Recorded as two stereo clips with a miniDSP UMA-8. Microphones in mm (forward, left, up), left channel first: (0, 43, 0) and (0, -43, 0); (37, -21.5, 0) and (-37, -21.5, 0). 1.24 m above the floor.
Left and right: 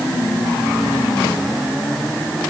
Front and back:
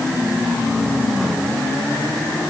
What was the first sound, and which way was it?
Only background noise.